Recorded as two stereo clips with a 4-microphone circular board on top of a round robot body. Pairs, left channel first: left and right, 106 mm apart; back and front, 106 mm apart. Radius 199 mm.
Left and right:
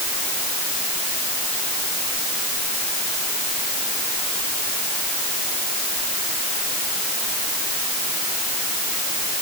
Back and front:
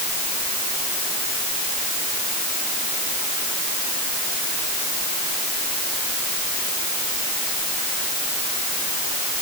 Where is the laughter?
No laughter in this recording.